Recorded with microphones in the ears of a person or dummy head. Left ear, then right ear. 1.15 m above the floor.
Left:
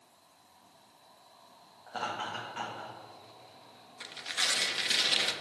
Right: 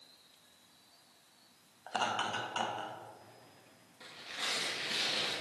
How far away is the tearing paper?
About 1.1 m.